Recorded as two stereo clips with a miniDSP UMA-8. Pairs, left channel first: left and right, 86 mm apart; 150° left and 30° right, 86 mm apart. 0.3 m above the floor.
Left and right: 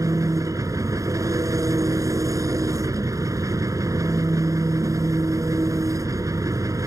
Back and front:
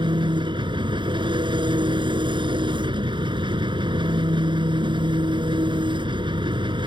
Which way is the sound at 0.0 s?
40° right.